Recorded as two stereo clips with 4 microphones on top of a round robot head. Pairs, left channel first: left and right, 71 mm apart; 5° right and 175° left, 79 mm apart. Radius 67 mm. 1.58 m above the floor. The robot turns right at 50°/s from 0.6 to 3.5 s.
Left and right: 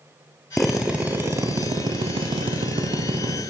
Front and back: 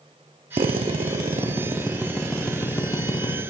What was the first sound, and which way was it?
A drill, 175° left.